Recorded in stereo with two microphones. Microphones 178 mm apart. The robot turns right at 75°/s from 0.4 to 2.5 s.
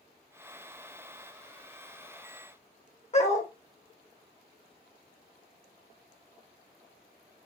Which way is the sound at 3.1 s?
40° left (ahead or behind).